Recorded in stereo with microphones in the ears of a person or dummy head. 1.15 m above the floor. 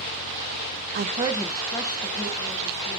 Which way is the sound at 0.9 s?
55° right (ahead or behind).